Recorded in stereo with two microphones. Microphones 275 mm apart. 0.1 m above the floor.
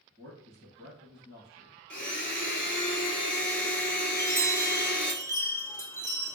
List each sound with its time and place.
0.2 s a man speaking: 20° right (ahead or behind), 1.5 m
1.9 s a blender: 40° left (ahead or behind), 0.6 m
4.1 s a chime: 10° left (ahead or behind), 0.9 m